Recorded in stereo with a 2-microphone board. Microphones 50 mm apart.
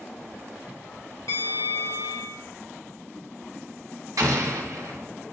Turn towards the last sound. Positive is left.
turn(degrees=-80)